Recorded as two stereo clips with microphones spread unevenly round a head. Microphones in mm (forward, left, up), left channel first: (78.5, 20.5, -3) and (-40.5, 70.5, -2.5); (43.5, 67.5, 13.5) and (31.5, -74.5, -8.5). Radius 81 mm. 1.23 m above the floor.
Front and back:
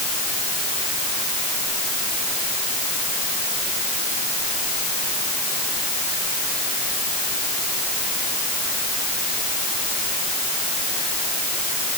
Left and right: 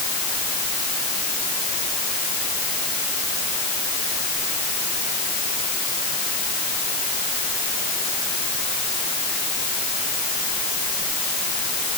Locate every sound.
Only background noise.